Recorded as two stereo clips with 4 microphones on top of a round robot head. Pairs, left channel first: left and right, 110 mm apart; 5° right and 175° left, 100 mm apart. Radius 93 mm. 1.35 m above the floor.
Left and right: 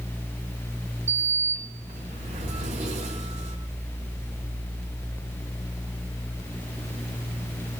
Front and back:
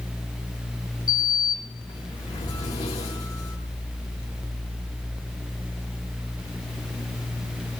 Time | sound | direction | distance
1.1 | a sliding door | 60° right | 5 m